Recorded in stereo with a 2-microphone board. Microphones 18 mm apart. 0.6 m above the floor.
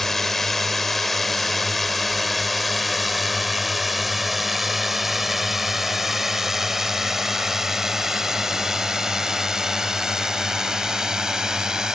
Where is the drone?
20° left (ahead or behind); by 11.9 s 30° right (ahead or behind).